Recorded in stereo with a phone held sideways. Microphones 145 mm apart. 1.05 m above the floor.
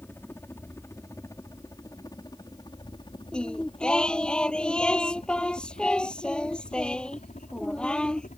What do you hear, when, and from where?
0.0 s a helicopter: 15° left (ahead or behind); by 8.4 s 60° left (ahead or behind)
3.3 s singing: 5° left (ahead or behind)